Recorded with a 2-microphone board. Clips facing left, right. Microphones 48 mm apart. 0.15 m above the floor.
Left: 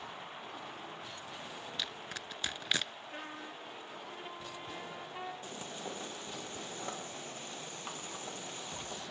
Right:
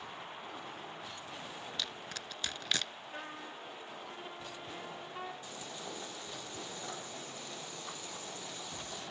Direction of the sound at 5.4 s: 45° left (ahead or behind).